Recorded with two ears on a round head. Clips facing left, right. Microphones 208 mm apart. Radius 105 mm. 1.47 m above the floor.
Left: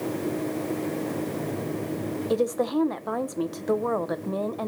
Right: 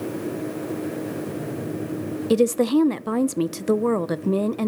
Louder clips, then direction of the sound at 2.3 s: Right 7 dB; 35° right (ahead or behind).